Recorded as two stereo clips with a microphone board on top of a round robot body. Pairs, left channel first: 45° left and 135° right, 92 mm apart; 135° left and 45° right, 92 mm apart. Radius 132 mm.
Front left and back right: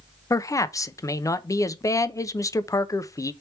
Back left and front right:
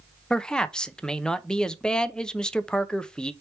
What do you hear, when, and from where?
0.3 s a man speaking: 60° left, 0.6 m